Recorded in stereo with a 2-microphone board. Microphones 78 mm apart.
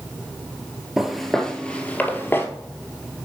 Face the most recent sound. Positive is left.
turn(degrees=30)  # may be behind; listen again after turning